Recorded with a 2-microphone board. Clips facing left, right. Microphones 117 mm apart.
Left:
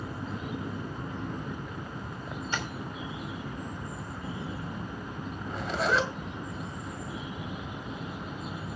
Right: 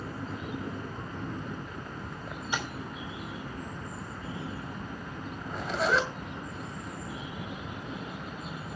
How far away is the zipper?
About 1.9 m.